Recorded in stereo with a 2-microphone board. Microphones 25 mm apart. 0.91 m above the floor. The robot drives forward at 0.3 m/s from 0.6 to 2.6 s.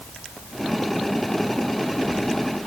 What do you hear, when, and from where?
Only background noise.